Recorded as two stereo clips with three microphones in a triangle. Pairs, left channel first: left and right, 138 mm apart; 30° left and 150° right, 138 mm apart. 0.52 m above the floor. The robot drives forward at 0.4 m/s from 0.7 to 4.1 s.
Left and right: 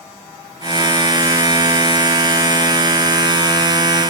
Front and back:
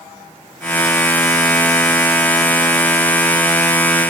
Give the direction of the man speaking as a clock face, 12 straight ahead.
No man speaking in this recording.